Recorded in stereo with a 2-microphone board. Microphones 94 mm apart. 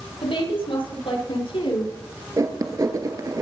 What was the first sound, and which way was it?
A woman speaking, 75° left (ahead or behind).